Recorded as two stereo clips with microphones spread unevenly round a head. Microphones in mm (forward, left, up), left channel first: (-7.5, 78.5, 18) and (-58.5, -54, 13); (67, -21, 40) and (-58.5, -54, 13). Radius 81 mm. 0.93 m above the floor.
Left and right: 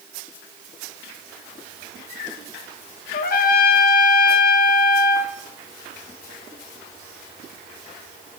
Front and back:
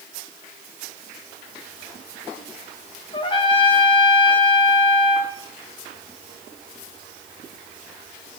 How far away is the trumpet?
About 0.6 m.